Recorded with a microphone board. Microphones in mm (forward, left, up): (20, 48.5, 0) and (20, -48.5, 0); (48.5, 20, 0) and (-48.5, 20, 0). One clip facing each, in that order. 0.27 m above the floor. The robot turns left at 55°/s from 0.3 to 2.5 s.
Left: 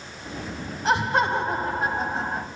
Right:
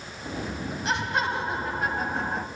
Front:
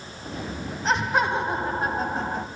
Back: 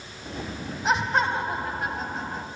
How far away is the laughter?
About 1.9 m.